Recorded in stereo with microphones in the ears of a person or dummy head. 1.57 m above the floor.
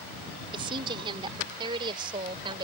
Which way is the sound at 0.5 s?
30° right (ahead or behind).